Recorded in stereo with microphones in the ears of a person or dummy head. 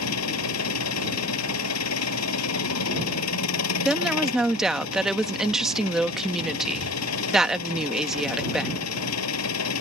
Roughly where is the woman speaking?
Centre.